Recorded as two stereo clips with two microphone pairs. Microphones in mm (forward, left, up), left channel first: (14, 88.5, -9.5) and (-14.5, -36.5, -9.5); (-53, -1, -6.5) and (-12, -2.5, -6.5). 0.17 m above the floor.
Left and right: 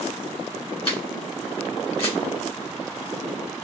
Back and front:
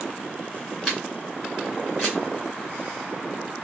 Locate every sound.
0.8 s a camera shutter: 80° left, 2 m